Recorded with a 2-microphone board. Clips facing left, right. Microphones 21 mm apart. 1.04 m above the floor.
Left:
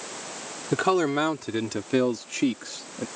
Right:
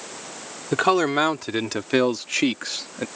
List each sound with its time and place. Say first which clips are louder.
0.7 s a man speaking: right 3 dB; 25° right (ahead or behind); by 3.1 s 50° right (ahead or behind)